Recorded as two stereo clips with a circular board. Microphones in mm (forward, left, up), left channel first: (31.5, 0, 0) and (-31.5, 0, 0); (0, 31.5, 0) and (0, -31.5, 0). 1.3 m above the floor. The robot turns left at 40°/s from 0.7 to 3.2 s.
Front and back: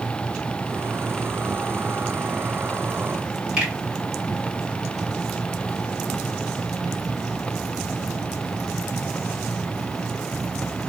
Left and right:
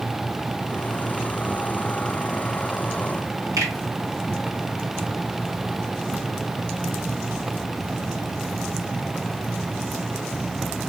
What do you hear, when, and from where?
3.6 s a finger snap: 105° right, 1.8 m